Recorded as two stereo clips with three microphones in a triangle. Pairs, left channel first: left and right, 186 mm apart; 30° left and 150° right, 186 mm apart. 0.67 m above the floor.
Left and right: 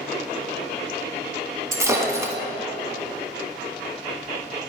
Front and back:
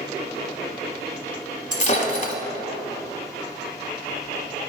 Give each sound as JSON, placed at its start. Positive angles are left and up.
{"t": 1.7, "sound": "breaking glass", "azimuth_deg": -20, "distance_m": 1.1}